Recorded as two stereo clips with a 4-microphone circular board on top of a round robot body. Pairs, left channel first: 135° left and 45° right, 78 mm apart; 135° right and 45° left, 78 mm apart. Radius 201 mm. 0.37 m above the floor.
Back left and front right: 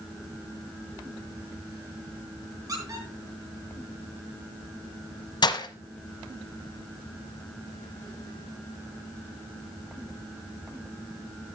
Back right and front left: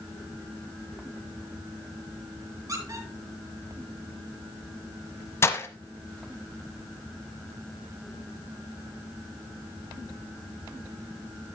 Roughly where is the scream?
I don't hear a scream.